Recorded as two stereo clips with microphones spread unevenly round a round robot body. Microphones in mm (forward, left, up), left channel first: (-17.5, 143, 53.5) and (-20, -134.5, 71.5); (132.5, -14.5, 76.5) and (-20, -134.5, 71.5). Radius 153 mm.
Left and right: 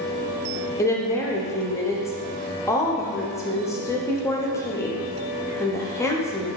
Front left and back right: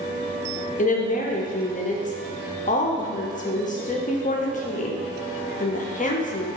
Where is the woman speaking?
20° left, 0.7 m.